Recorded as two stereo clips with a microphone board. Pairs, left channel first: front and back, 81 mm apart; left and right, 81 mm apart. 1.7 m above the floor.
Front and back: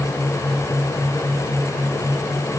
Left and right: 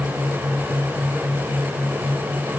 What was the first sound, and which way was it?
Only background noise.